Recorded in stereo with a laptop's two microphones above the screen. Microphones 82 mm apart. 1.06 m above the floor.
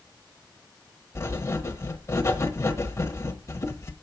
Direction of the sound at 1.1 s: 35° left (ahead or behind).